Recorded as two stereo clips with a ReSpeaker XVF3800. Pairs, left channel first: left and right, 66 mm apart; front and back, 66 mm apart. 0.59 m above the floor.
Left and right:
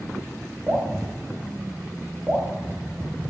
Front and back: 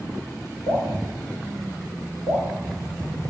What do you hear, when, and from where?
0.7 s dripping: 20° right, 1.3 m